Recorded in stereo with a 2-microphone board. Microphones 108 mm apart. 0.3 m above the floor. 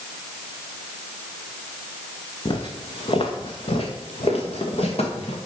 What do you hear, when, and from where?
2.5 s footsteps: 45° left (ahead or behind), 1.4 m; by 5.4 s 65° left (ahead or behind), 3 m